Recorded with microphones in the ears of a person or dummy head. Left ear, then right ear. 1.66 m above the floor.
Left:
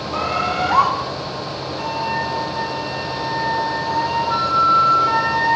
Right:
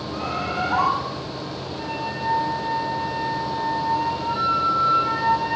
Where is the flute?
80° left, 6.5 m.